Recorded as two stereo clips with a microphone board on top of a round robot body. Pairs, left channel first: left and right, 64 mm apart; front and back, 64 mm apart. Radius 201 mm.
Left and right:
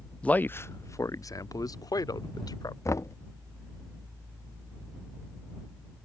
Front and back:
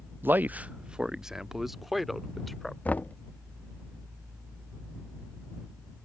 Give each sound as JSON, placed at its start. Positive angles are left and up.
{"t": 0.2, "sound": "a man speaking", "azimuth_deg": 150}
{"t": 2.9, "sound": "knocking", "azimuth_deg": 65}